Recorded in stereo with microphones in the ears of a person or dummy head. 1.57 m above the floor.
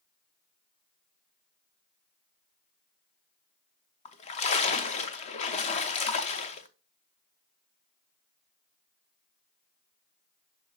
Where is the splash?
30° left (ahead or behind), 0.8 m.